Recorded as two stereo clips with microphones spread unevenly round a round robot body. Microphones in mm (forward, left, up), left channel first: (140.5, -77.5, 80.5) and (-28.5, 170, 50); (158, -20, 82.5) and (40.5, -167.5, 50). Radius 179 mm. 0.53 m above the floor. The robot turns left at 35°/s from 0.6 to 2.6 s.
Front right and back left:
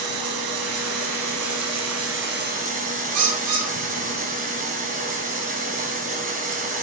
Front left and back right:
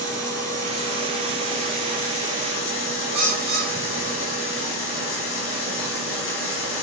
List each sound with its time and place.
0.0 s running water: 130° left, 3 m; by 6.8 s 60° left, 3 m
3.1 s a bird: 165° left, 2.5 m